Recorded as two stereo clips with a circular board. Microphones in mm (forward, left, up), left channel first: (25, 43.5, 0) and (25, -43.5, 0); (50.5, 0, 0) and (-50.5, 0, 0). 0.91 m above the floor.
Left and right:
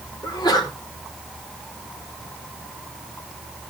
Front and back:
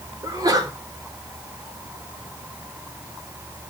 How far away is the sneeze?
About 3 m.